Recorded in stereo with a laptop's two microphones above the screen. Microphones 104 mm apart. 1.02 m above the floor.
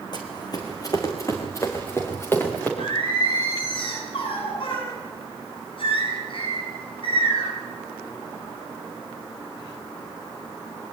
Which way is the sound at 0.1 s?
45° left (ahead or behind).